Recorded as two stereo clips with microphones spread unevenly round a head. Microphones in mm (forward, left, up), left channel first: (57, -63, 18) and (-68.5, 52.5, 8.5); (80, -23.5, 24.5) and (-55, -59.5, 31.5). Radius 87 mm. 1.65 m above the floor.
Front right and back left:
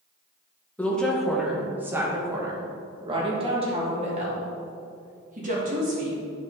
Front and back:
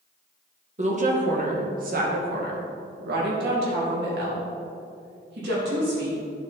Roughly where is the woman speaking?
Behind right.